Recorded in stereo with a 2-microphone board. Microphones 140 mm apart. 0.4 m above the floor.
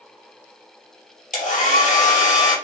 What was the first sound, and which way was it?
A hair dryer, 65° left (ahead or behind).